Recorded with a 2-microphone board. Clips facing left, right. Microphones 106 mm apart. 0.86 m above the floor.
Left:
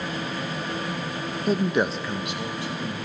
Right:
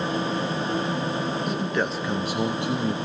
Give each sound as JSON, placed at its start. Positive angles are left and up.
{"t": 1.5, "sound": "a man speaking", "side_deg": 40, "distance_m": 0.9}